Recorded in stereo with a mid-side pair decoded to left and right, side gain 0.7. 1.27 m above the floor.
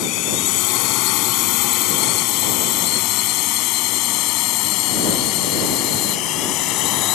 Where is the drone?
65° left; by 7.2 s 60° left.